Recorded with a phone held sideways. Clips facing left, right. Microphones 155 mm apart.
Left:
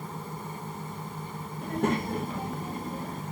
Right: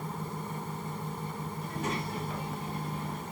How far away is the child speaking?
About 1.2 m.